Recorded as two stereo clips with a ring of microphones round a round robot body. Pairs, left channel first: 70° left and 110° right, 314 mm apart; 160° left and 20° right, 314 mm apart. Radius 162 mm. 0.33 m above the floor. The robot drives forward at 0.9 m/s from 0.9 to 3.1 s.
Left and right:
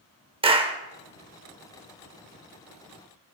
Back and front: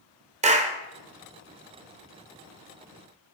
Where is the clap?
60° right, 1.0 m.